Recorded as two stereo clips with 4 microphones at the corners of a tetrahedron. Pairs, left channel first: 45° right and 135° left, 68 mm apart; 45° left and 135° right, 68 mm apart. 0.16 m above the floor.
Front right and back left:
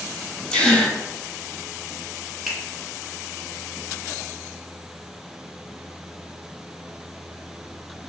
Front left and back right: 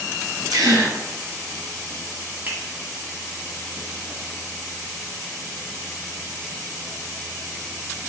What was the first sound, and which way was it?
A gasp, 120° right.